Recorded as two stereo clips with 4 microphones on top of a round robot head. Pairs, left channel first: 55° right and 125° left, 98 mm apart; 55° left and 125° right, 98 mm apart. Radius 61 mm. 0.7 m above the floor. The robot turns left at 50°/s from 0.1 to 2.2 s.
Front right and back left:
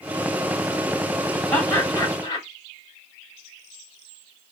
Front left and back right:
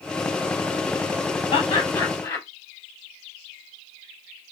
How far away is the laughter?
About 1.7 m.